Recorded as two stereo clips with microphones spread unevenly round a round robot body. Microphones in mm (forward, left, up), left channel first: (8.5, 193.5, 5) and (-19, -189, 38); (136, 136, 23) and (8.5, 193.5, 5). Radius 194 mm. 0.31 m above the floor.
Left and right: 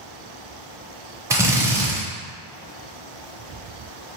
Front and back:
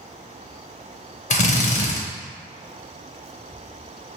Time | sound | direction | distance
1.3 | a drill | 10° right | 0.6 m